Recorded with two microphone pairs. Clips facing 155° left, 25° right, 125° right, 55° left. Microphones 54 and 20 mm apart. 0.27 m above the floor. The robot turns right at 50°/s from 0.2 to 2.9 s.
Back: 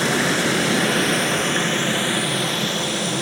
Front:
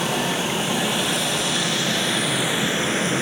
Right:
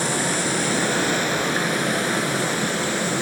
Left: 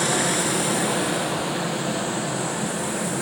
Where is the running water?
145° left, 1.8 m; by 3.2 s 80° right, 1.8 m.